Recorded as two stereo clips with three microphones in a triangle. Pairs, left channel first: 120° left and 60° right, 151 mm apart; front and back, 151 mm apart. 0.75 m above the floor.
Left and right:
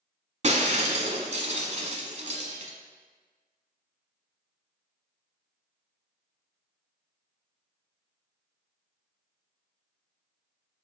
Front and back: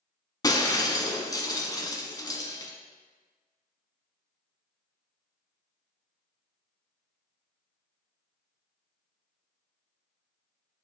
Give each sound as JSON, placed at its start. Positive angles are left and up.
{"t": 0.4, "sound": "breaking glass", "azimuth_deg": -55, "distance_m": 0.9}